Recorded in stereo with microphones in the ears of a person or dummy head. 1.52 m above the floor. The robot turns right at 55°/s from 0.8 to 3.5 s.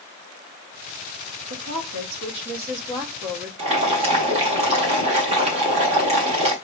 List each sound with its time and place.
1.5 s a woman speaking: 110° right, 1.3 m; by 3.5 s 5° right, 1.3 m
3.6 s boiling: 35° right (ahead or behind), 1.5 m